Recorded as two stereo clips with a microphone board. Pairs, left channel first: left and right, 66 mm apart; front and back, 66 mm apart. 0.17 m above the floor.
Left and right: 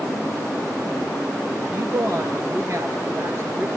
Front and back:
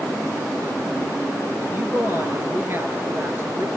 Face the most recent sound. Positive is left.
turn(degrees=-130)